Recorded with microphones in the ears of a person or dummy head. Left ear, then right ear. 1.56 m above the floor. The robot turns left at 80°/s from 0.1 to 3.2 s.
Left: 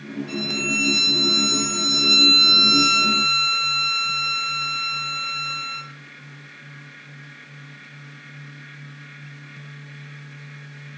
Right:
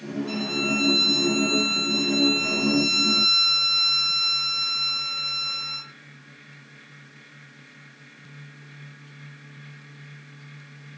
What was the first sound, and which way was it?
A violin, 150° right.